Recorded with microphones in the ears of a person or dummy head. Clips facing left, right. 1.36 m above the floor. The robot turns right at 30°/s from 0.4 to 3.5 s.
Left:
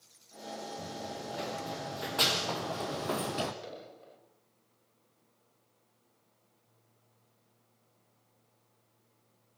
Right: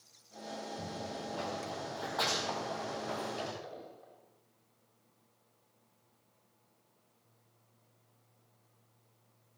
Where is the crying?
I don't hear crying.